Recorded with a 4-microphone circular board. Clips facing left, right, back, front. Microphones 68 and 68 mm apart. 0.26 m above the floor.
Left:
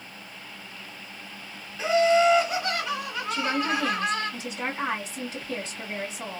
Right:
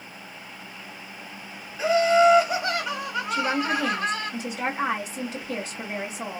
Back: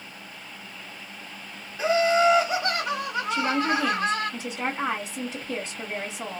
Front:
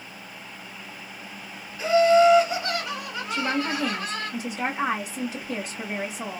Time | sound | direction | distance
1.8 | laughter | 150° right | 1.0 m
3.3 | a woman speaking | 55° right | 1.5 m